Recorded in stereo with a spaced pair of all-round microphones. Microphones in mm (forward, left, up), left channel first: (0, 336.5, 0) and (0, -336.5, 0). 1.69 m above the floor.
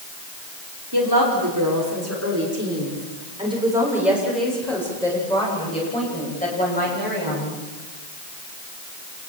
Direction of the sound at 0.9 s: 35° right (ahead or behind).